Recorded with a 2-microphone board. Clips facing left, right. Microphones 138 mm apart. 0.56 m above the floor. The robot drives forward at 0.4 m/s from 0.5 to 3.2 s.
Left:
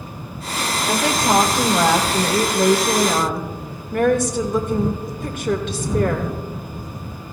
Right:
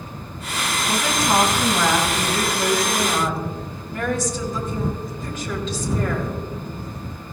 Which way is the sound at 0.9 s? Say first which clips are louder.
Left 3 dB; 65° left (ahead or behind).